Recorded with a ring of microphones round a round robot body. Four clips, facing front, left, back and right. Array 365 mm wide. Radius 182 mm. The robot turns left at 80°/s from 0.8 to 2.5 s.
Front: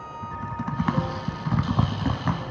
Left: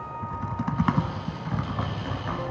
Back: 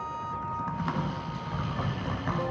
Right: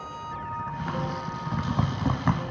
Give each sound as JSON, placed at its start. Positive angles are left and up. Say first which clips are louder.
{"t": 0.2, "sound": "typing on a keyboard", "louder": "left 2 dB, front 5 dB", "azimuth_deg": 60, "distance_m": 0.6}